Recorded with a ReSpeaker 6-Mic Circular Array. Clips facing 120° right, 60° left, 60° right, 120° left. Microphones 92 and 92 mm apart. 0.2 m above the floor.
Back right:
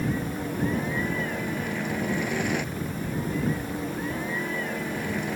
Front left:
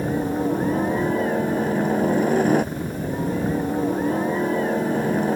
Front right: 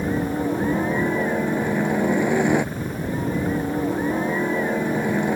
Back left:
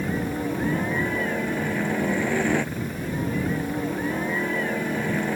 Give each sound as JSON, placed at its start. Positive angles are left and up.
{"t": 0.0, "sound": "a helicopter", "azimuth_deg": 10}